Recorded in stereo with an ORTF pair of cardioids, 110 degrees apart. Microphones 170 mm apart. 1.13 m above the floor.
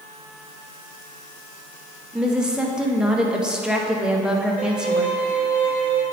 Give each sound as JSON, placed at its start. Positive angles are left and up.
{"t": 2.1, "sound": "a woman speaking", "azimuth_deg": -5, "distance_m": 1.0}
{"t": 4.6, "sound": "a violin", "azimuth_deg": -50, "distance_m": 2.5}